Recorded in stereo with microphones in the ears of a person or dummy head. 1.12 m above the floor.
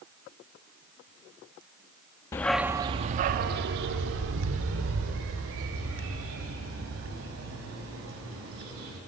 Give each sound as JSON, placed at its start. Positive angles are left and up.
{"t": 2.3, "sound": "a dog barking", "side_deg": 15, "distance_m": 0.5}